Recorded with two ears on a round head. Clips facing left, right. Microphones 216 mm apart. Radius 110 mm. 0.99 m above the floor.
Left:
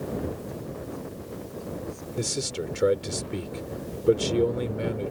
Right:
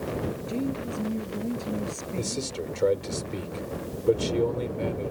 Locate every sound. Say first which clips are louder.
0.5 s a woman speaking: right 7 dB; 80° right
2.2 s a man speaking: left 2 dB; 20° left (ahead or behind)